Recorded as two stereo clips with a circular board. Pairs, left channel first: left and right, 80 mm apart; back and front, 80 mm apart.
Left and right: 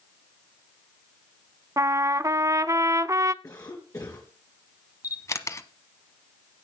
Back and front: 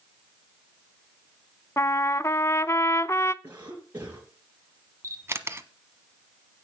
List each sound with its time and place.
1.8 s a trumpet: 130° right, 0.5 m
3.4 s a cough: 60° left, 3 m
5.0 s a camera shutter: 50° left, 1.1 m